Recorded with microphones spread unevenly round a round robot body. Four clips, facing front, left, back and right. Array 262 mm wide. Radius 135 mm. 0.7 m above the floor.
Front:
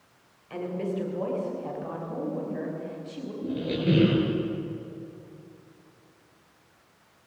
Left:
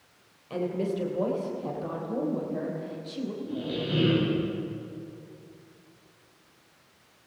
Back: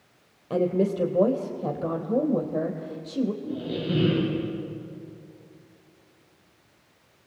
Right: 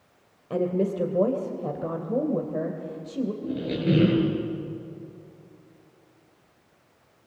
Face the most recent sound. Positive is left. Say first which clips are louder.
# right 6 dB, front 3 dB
turn(degrees=-45)